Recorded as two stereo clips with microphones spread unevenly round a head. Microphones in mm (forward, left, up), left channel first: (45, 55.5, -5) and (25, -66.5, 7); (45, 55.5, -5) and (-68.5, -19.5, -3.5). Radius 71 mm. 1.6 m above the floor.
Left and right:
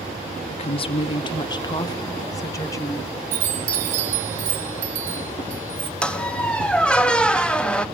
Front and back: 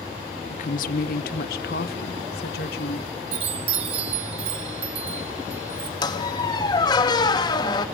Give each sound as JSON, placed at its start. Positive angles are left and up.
{"t": 0.5, "sound": "a woman speaking", "azimuth_deg": 50, "distance_m": 0.6}
{"t": 3.3, "sound": "a chime", "azimuth_deg": -95, "distance_m": 2.0}
{"t": 6.0, "sound": "a squeak", "azimuth_deg": -5, "distance_m": 1.1}